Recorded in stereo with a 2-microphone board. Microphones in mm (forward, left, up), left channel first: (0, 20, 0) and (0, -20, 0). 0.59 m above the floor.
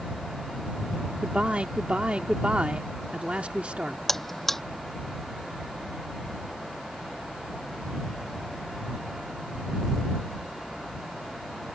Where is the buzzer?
5° left (ahead or behind).